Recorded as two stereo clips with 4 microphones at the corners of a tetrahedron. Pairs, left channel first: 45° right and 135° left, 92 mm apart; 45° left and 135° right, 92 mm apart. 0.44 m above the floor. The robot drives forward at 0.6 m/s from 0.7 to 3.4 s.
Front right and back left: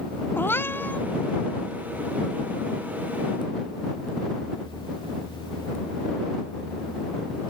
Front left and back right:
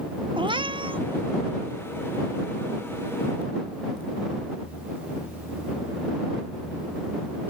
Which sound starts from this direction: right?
A cat meowing, at 0.4 s.